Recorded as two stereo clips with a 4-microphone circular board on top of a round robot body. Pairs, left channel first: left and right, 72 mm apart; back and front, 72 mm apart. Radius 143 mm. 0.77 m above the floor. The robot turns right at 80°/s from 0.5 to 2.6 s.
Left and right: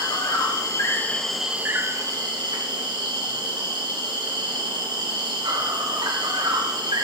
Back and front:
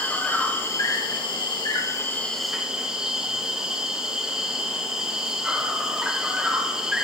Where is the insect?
110° left, 1.9 m; by 7.1 s 80° right, 1.9 m.